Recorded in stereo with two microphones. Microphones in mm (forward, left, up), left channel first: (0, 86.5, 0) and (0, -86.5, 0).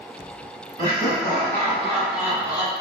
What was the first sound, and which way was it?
Laughter, 35° left (ahead or behind).